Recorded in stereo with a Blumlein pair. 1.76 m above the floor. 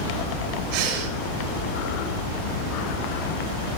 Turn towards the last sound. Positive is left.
turn(degrees=-50)